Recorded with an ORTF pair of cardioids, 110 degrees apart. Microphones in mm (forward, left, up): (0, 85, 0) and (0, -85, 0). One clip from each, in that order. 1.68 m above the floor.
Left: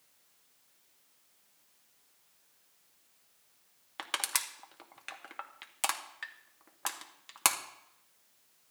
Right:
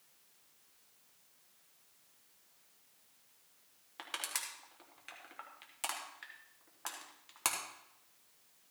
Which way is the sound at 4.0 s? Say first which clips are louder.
Left 6 dB; 45° left.